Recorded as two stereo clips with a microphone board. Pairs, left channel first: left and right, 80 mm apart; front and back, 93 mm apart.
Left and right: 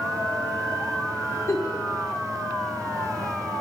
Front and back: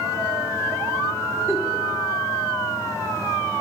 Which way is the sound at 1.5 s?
135° left.